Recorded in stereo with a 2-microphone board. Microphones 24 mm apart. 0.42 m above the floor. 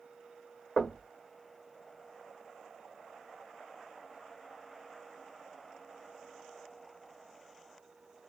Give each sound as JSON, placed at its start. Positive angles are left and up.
{"t": 0.8, "sound": "knocking", "side_deg": 30, "distance_m": 1.2}